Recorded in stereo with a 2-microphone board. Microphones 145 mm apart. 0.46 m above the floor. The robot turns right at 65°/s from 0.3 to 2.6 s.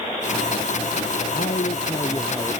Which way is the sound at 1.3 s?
105° left.